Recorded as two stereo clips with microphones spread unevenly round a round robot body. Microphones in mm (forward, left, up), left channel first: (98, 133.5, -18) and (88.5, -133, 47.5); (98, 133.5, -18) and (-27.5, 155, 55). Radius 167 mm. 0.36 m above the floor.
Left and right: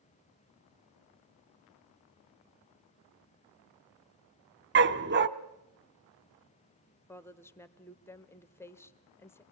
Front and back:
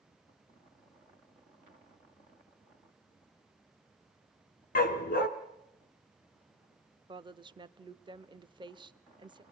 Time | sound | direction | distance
4.8 | a dog barking | 40° right | 1.1 m
7.1 | a woman speaking | 85° left | 1.0 m